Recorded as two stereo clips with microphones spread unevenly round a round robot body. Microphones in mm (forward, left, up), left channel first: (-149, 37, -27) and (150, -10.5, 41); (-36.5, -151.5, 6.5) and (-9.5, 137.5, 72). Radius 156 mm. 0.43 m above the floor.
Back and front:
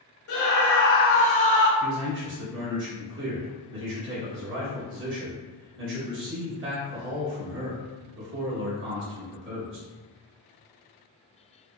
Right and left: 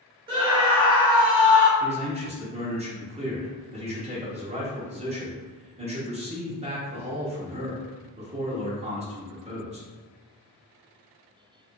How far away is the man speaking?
About 1.2 m.